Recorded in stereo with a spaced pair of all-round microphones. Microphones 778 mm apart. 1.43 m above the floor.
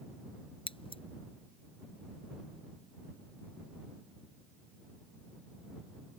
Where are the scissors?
10° left (ahead or behind).